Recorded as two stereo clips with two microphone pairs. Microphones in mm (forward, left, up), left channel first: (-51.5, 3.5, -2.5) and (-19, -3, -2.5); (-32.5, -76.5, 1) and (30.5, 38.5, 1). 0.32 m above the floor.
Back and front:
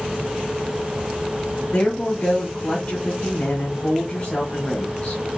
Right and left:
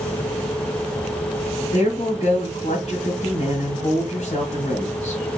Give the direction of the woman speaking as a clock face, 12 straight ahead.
5 o'clock.